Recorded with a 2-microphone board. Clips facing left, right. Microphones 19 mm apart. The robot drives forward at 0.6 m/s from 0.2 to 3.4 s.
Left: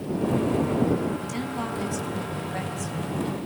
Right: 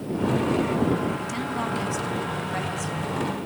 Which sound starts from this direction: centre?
A woman speaking, at 1.2 s.